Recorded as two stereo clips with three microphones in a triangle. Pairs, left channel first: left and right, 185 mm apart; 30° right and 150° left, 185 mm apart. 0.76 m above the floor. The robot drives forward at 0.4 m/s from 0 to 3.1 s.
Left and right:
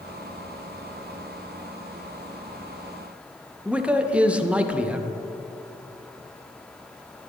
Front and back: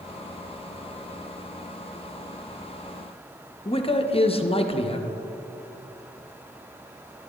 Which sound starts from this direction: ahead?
A man speaking, at 3.6 s.